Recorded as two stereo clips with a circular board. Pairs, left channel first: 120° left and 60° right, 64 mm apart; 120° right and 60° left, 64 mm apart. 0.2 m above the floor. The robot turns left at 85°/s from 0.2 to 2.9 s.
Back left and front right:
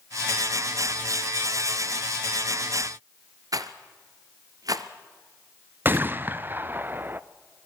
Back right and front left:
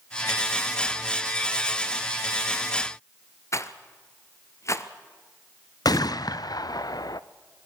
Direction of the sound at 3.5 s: 80° right.